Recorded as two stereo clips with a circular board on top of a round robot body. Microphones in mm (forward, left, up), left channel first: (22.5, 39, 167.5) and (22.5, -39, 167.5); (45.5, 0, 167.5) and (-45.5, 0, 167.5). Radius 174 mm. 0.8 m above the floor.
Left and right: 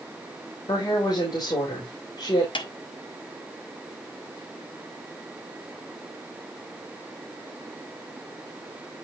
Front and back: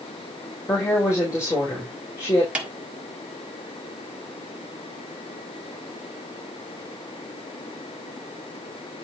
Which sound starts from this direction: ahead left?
A woman speaking, at 0.7 s.